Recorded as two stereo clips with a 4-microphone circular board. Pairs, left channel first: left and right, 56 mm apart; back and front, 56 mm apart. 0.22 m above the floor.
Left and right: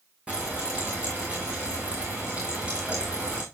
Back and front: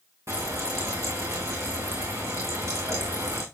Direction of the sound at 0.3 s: 20° right.